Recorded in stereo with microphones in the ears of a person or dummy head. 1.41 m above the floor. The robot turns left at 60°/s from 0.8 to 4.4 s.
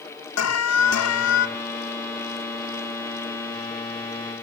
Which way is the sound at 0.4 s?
100° left.